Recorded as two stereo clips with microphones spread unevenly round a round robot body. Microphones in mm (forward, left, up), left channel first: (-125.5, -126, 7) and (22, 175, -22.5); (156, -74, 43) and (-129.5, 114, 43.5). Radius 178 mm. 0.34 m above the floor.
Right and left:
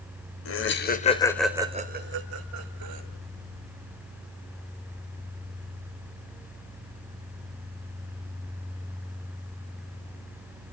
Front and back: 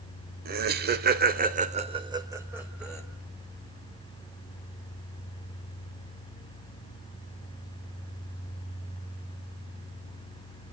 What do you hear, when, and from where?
0.5 s laughter: 160° right, 1.8 m; by 3.0 s 60° left, 2.5 m